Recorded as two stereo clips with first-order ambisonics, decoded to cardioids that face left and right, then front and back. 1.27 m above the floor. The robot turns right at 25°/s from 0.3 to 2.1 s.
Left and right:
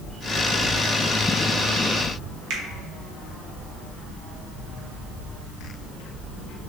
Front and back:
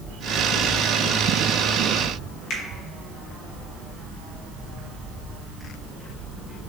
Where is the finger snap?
50° right, 0.9 m.